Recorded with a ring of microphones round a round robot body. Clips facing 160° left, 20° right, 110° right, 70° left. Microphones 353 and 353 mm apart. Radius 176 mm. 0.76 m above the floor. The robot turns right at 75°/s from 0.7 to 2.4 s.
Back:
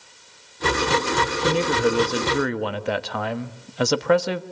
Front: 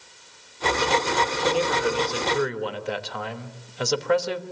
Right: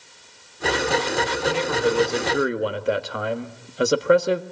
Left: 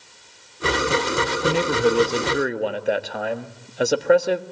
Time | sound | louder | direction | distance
1.4 | a man speaking | back 3 dB, left 3 dB | 90° left | 1.3 m